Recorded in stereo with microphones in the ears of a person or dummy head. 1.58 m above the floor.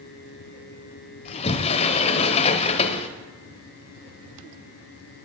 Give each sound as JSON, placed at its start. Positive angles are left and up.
{"t": 1.2, "sound": "a sliding door", "side_deg": 30, "distance_m": 0.8}